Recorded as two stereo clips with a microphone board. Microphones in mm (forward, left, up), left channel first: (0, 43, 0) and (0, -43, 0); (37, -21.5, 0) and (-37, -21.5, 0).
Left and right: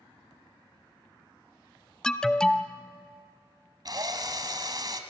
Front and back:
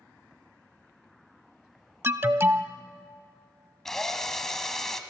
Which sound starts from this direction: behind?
An alarm, at 2.0 s.